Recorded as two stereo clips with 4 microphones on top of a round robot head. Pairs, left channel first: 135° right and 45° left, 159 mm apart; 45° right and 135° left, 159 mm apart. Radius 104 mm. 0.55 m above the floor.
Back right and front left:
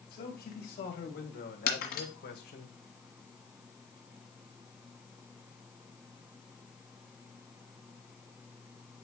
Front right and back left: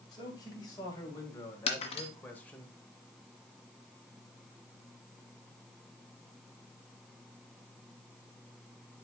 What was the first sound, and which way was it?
A man speaking, 110° right.